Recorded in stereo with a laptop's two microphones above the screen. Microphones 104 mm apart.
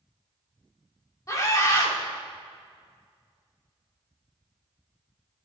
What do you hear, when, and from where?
1.3 s a scream: 35° left (ahead or behind), 2.5 m